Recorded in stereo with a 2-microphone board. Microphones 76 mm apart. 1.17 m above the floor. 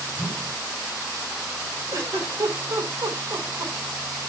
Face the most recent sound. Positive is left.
turn(degrees=-50)  # may be behind; listen again after turning